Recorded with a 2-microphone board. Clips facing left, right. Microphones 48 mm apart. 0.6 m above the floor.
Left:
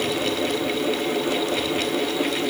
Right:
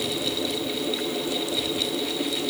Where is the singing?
I don't hear singing.